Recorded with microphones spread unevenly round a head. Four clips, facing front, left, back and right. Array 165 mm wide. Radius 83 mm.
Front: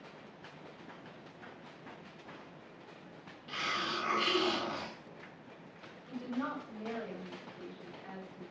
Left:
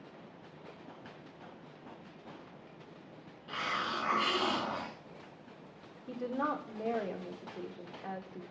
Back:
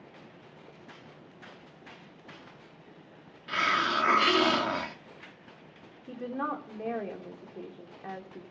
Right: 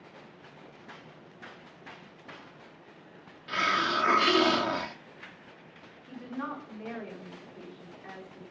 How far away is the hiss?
About 1.4 m.